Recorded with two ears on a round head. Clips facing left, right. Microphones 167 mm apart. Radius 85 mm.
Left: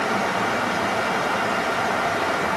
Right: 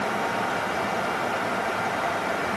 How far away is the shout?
No shout in this recording.